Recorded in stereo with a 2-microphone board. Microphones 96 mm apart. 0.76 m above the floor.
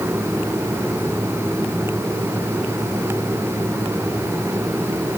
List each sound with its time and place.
Only background noise.